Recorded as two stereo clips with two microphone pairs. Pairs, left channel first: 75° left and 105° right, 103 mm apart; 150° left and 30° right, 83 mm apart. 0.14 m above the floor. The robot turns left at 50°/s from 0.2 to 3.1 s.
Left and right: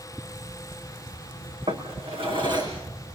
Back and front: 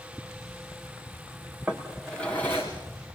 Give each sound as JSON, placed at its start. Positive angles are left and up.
{"t": 1.7, "sound": "a drawer", "azimuth_deg": -105, "distance_m": 5.5}